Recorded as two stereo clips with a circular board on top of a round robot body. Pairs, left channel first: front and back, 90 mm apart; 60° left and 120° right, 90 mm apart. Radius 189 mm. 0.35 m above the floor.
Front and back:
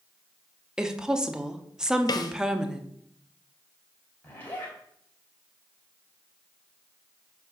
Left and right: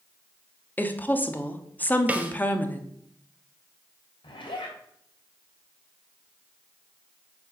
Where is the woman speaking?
105° left, 1.1 m.